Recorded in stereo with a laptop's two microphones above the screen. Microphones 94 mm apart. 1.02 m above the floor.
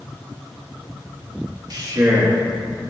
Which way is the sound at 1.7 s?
45° right (ahead or behind).